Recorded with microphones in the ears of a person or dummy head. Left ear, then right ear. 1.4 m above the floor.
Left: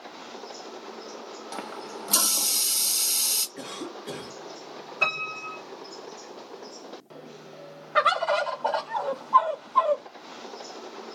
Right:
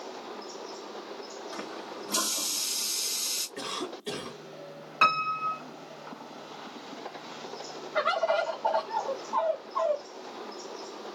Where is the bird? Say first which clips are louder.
Left 4 dB; 70° left (ahead or behind), 0.8 m.